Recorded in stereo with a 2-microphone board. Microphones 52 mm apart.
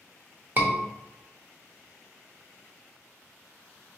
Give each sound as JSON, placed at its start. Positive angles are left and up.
{"t": 0.6, "sound": "a scream", "side_deg": -30, "distance_m": 1.0}